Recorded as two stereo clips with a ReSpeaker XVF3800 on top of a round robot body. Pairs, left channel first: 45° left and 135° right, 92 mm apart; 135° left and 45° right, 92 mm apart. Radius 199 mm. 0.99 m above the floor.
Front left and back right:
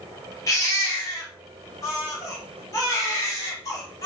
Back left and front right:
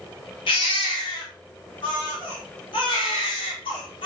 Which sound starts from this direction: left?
A baby crying, at 0.5 s.